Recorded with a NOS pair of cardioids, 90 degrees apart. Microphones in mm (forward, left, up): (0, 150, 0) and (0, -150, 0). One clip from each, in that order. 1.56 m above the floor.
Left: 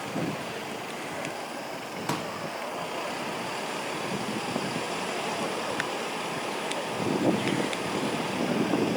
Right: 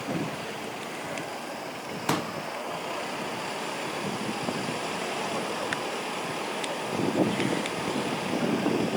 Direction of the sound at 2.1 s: 25° right.